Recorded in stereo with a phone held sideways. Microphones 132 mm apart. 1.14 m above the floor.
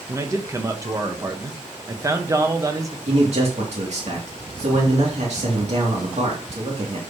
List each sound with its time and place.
0.1 s a man speaking: 25° right (ahead or behind), 1.2 m
3.1 s a man speaking: 60° right (ahead or behind), 2.5 m